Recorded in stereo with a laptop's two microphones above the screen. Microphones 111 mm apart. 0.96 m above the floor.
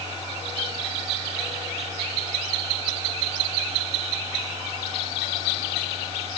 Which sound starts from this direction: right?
A machine running, at 0.0 s.